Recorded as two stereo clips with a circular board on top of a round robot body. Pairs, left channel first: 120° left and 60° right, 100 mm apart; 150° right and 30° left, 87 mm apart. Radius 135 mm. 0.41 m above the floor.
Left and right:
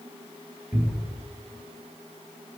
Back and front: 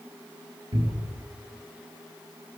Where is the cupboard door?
10° left, 4 m.